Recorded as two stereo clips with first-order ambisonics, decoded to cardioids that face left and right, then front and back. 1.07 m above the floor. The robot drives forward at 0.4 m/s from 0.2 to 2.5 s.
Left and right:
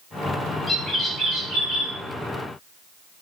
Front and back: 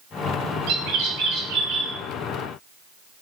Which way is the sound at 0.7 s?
170° left.